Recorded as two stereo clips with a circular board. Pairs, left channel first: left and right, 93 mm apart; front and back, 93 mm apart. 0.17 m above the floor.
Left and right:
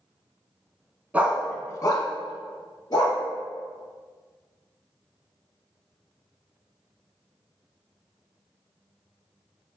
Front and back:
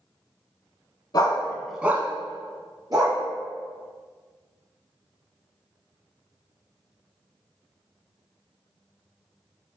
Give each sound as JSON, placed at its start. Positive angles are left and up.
{"t": 1.1, "sound": "a dog barking", "azimuth_deg": -25, "distance_m": 0.7}